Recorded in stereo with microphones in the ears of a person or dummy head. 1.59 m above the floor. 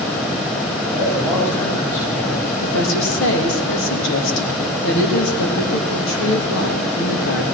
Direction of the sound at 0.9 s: 40° left (ahead or behind).